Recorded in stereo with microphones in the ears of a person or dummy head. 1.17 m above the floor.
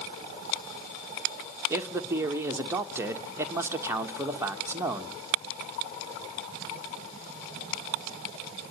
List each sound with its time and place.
1.7 s a man speaking: 10° right (ahead or behind), 1.4 m